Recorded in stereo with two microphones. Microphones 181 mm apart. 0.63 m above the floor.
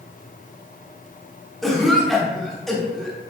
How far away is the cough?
About 1.0 m.